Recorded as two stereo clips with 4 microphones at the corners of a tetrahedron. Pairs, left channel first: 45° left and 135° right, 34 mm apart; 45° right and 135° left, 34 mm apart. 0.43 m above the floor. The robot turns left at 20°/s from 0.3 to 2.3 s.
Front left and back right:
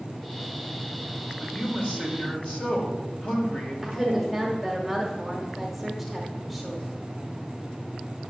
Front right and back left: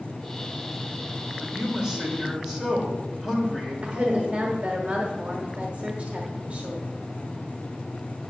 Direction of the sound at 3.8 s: 135° left.